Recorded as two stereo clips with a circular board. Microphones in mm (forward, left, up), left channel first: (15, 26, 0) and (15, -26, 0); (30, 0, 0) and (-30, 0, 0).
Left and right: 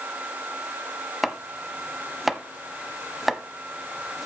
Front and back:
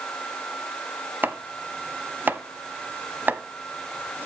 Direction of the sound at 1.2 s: 175° right.